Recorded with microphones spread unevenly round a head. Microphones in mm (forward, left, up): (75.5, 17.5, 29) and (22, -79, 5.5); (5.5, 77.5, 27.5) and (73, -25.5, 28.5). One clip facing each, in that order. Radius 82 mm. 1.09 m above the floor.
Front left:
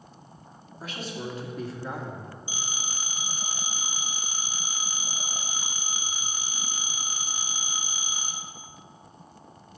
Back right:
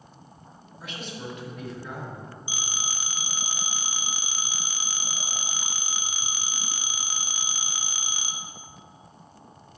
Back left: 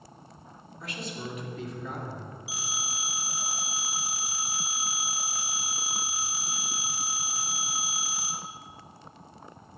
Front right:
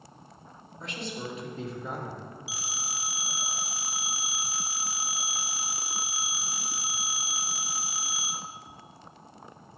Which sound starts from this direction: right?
A phone ringing, at 2.5 s.